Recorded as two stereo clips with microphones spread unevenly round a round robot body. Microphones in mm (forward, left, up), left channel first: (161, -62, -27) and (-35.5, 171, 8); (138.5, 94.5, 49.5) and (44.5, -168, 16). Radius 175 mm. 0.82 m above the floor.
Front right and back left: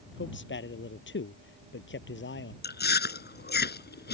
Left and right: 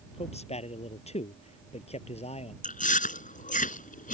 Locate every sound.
0.1 s a man speaking: 5° left
2.6 s chewing: 10° left